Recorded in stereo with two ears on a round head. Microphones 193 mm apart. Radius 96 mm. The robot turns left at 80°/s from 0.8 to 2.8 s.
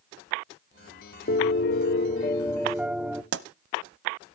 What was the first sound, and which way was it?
A piano, 115° left.